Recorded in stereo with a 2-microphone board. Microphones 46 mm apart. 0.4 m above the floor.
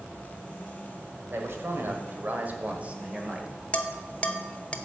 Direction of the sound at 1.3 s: 60° right (ahead or behind).